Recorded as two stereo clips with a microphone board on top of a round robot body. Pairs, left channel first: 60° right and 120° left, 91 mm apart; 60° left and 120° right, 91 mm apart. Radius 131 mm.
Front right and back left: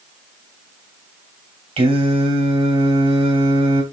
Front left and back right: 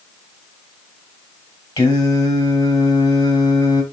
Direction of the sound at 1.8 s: 115° left.